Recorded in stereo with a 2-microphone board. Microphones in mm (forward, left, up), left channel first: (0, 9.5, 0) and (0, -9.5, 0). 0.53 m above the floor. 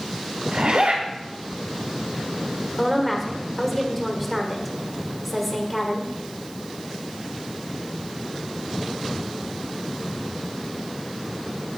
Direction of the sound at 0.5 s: 70° right (ahead or behind).